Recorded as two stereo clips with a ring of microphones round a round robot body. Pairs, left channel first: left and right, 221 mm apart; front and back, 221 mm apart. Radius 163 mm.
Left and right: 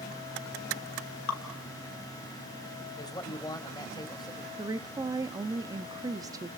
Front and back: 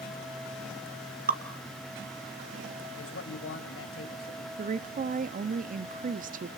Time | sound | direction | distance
1.3 | dripping | 130° left | 1.7 m
3.0 | a man speaking | 15° left | 3 m
4.6 | a woman speaking | 155° right | 0.7 m